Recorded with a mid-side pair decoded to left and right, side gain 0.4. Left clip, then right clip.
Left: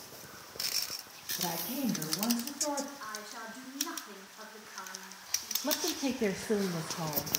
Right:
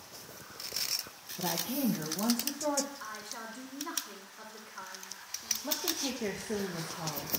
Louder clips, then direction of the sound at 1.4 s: Right 3 dB; 25° right.